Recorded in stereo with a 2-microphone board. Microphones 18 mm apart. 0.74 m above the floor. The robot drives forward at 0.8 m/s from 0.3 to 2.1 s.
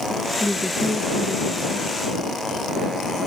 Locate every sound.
0.4 s a woman speaking: 80° left; by 1.9 s 85° left